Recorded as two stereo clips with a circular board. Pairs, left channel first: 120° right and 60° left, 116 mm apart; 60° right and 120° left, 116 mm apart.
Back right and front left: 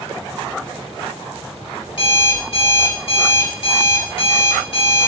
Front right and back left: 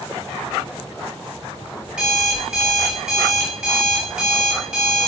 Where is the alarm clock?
160° right, 3.5 m.